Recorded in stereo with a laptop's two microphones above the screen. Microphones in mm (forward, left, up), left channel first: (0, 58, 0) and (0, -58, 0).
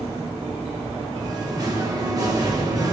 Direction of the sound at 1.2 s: 35° right (ahead or behind).